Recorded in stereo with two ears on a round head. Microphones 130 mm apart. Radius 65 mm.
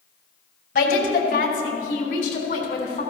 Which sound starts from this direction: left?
A woman speaking, at 0.8 s.